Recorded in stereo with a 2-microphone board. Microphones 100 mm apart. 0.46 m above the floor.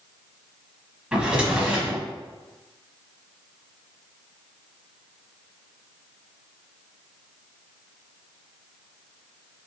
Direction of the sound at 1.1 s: 10° right (ahead or behind).